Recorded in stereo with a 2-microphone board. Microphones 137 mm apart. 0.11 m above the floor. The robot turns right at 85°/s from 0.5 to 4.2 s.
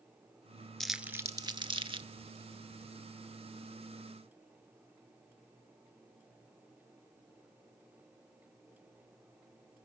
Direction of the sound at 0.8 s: 5° left (ahead or behind).